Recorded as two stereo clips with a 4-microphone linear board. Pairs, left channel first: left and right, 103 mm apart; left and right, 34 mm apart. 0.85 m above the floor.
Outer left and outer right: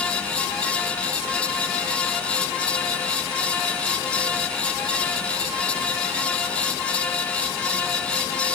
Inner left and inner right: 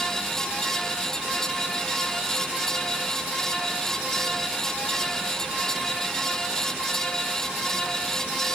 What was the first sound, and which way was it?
Only background noise.